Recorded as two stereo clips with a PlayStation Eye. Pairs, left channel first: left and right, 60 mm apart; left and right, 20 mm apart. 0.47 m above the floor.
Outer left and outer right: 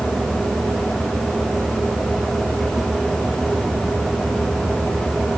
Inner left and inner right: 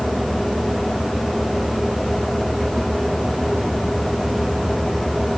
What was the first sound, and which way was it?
Only background noise.